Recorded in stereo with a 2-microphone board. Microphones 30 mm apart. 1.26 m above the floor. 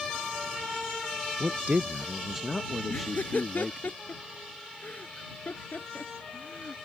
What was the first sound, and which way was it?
A man speaking, 50° right (ahead or behind).